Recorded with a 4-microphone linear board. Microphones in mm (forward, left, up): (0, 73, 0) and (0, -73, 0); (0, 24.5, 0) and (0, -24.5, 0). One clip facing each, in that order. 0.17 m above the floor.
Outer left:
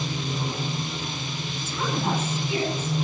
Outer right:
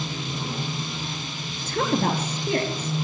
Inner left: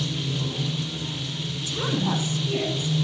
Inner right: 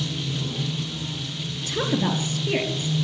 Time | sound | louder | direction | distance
0.0 | running water | outer left 2 dB, even | 15° left (ahead or behind) | 3 m
1.6 | a woman speaking | outer right 4 dB, inner right 2 dB | 65° right (ahead or behind) | 4 m